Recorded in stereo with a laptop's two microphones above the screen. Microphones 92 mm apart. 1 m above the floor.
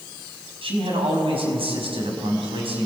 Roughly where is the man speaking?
Right.